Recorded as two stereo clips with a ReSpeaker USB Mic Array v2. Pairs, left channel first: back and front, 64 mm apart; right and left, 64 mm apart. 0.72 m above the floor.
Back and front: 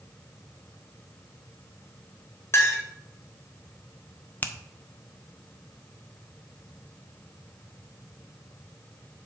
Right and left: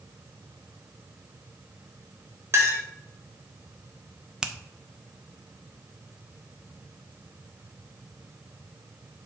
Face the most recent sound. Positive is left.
turn(degrees=155)